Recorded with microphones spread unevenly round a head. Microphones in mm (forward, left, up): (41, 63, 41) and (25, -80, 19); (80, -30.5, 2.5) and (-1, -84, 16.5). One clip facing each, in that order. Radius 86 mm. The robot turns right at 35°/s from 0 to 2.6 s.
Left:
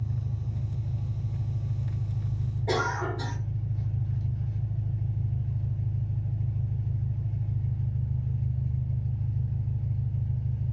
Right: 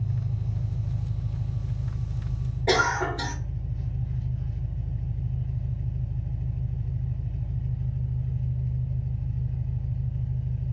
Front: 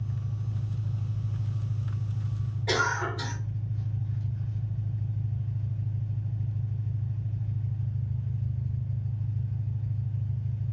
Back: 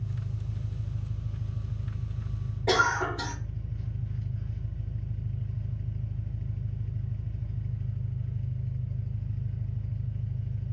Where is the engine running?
40° right, 1.6 m; by 10.7 s 55° left, 1.6 m.